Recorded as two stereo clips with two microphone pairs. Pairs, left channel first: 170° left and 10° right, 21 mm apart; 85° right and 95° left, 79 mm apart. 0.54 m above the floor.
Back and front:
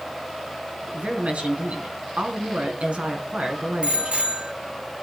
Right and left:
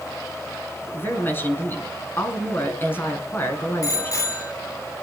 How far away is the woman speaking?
About 4.5 m.